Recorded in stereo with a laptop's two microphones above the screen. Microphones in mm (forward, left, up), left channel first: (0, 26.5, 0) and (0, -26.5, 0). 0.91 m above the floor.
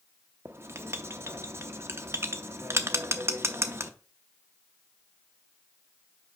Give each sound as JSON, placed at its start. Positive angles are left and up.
{"t": 0.5, "sound": "writing", "side_deg": -50, "distance_m": 0.6}